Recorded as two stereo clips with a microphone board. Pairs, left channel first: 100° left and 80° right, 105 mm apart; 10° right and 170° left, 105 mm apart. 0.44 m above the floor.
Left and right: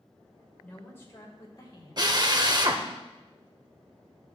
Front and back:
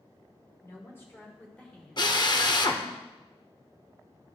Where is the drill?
45° right, 0.7 m.